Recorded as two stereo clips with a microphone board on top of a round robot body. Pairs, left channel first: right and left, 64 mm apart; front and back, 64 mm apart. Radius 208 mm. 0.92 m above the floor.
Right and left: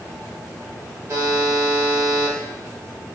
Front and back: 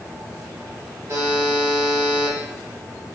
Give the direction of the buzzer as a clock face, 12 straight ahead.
8 o'clock.